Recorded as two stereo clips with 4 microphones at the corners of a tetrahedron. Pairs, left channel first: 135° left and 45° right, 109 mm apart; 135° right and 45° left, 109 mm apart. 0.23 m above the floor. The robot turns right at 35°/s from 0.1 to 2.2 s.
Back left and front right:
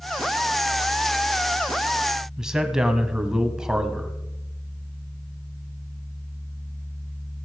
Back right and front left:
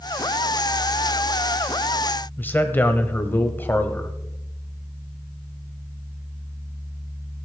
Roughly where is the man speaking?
Behind right.